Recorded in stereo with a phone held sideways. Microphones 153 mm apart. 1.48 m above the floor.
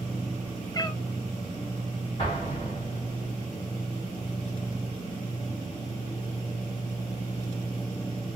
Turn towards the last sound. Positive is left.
turn(degrees=40)  # may be behind; listen again after turning